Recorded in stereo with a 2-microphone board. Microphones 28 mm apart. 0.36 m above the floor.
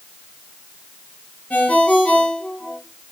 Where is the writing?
I don't hear writing.